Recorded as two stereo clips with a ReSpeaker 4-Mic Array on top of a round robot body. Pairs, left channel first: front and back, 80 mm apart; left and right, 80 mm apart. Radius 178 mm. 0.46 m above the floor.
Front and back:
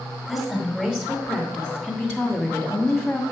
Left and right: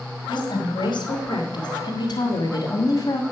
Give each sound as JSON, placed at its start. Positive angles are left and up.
{"t": 0.3, "sound": "a woman speaking", "azimuth_deg": 95, "distance_m": 2.5}